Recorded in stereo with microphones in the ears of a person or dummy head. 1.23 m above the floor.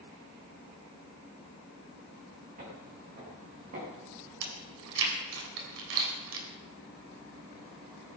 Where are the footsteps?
45° right (ahead or behind), 6.5 m.